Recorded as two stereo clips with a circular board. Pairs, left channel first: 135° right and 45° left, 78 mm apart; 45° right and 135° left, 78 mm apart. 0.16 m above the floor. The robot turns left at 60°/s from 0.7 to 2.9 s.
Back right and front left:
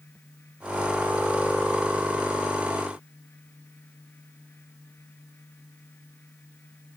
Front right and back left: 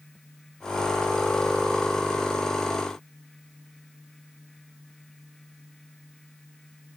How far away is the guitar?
No guitar in this recording.